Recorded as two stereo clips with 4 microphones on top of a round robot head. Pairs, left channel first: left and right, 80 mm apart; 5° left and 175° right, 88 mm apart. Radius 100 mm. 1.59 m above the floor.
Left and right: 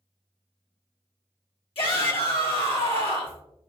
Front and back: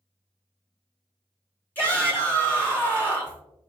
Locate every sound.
1.8 s a shout: 75° left, 1.6 m